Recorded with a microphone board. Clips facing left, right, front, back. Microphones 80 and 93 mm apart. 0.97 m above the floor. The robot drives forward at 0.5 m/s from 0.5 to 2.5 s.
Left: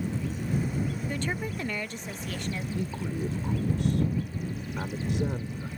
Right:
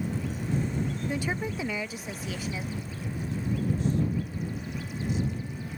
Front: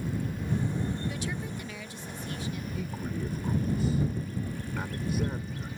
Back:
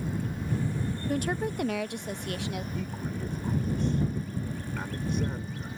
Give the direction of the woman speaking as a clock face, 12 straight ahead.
5 o'clock.